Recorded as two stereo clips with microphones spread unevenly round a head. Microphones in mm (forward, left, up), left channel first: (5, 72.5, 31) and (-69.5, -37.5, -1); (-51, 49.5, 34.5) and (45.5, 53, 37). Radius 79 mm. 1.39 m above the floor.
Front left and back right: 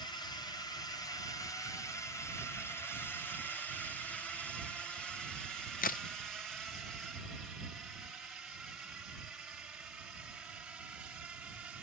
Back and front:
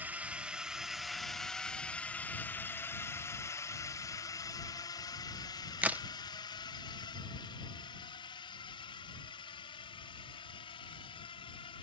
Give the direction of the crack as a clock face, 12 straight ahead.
9 o'clock.